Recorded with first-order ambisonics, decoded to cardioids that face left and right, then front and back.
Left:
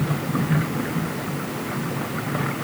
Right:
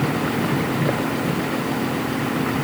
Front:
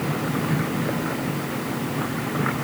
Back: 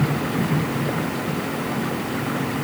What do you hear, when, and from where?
Only background noise.